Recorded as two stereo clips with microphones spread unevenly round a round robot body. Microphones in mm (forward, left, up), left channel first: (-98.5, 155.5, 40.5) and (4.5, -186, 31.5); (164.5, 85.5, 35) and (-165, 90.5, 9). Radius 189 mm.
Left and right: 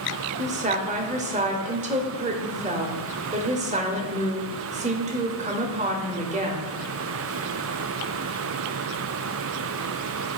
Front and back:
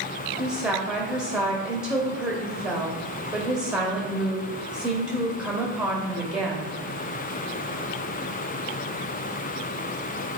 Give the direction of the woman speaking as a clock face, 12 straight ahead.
4 o'clock.